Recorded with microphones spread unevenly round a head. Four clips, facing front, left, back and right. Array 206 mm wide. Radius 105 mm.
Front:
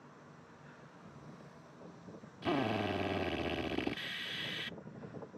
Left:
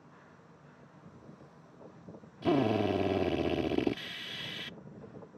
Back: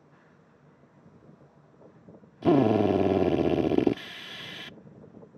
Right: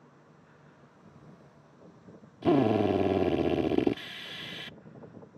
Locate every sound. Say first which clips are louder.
2.4 s a drill: right 4 dB, back 13 dB; 165° right